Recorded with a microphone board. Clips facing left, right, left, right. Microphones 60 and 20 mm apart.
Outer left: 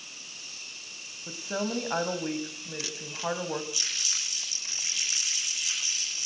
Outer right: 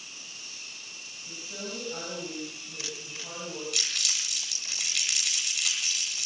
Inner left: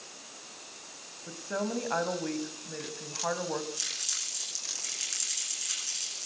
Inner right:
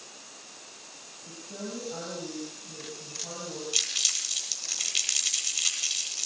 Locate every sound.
1.3 s a woman speaking: 65° left (ahead or behind), 3.5 m
3.7 s crumpling: 65° right (ahead or behind), 9 m